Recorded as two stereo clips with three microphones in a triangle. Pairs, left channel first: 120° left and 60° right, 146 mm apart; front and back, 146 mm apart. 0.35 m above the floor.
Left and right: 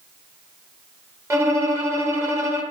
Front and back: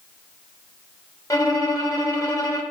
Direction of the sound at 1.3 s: 20° right.